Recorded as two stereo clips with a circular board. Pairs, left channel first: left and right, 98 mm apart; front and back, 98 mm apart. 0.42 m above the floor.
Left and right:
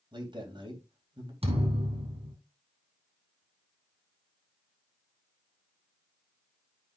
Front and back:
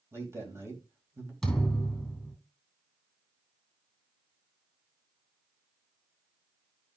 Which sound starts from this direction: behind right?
A man speaking, at 0.1 s.